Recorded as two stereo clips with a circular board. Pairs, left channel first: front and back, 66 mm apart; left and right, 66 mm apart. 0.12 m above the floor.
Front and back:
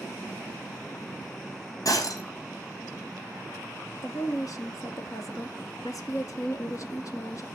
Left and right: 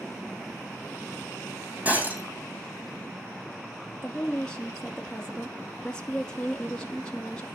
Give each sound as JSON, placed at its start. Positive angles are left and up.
{"t": 1.9, "sound": "breaking glass", "azimuth_deg": -25, "distance_m": 4.0}
{"t": 4.0, "sound": "a woman speaking", "azimuth_deg": 15, "distance_m": 2.0}